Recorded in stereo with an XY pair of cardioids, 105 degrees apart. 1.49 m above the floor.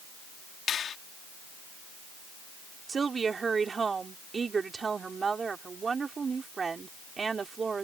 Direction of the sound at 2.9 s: 35° right.